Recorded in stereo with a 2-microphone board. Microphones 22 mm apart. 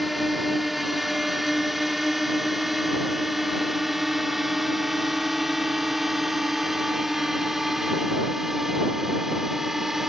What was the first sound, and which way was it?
A drone, 5° right (ahead or behind).